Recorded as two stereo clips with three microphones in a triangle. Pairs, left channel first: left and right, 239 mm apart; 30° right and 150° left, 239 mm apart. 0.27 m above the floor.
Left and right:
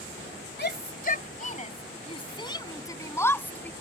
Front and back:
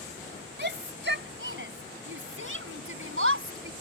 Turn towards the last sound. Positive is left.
turn(degrees=175)